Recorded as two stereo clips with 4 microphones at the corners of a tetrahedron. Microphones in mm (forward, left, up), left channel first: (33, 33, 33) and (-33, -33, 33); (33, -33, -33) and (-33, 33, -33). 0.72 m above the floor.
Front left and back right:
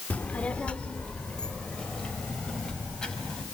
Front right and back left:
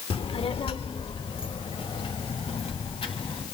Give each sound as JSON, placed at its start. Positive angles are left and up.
{"t": 0.1, "sound": "a child speaking", "azimuth_deg": -30, "distance_m": 0.9}